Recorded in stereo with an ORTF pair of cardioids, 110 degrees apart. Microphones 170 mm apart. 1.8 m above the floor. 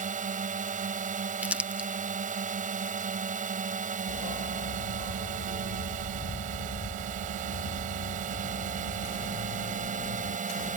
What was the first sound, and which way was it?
A drone, 50° right.